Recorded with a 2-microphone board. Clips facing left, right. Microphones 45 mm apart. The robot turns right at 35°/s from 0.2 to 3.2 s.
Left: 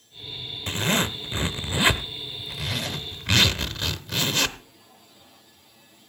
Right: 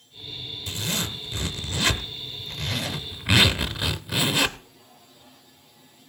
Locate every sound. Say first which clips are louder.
0.7 s a zipper: left 6 dB; 110° left, 0.7 m; by 4.6 s 160° right, 0.7 m